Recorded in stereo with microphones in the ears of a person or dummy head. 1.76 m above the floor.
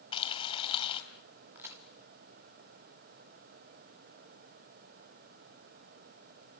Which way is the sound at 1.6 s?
5° right (ahead or behind).